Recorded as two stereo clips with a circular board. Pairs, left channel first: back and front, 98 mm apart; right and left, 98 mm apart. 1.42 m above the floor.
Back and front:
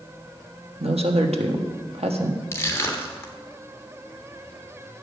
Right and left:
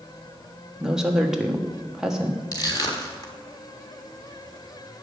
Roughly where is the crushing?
Behind right.